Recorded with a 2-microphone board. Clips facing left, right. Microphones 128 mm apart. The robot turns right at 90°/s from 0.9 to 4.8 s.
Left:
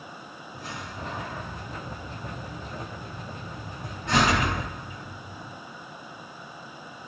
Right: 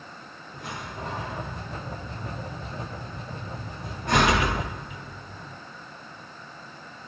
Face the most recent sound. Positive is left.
turn(degrees=-65)  # may be behind; listen again after turning